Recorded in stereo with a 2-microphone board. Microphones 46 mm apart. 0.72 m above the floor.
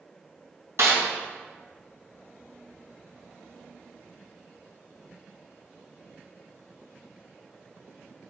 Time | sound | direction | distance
0.8 | a snare drum | 65° right (ahead or behind) | 3 m